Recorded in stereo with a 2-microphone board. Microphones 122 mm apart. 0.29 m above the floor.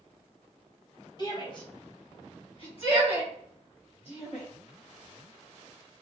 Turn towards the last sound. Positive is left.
turn(degrees=50)  # may be behind; listen again after turning